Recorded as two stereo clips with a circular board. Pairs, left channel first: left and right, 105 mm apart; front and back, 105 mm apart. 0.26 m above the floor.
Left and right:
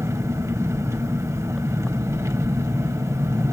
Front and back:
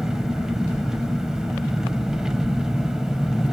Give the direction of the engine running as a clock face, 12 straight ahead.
3 o'clock.